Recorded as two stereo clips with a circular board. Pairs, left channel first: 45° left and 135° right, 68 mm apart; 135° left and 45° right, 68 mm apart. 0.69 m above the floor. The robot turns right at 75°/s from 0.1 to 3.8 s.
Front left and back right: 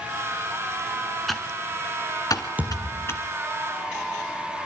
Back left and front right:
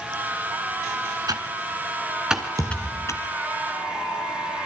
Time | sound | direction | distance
1.3 | typing on a keyboard | 45° right | 2 m
2.6 | a thud | 75° right | 4 m